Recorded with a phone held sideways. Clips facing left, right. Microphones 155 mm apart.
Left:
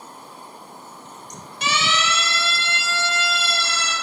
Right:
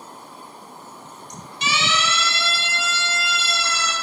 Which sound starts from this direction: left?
A siren, at 1.6 s.